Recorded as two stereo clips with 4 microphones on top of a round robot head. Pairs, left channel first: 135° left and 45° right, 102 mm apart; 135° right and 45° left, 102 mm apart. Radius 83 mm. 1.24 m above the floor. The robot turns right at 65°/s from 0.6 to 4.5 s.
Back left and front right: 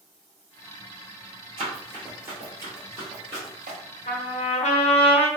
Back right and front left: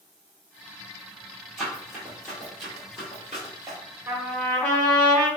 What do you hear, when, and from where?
1.6 s running footsteps: 45° right, 1.3 m; by 3.8 s 35° right, 1.5 m
4.1 s a trumpet: 120° left, 0.5 m; by 5.3 s 150° left, 0.5 m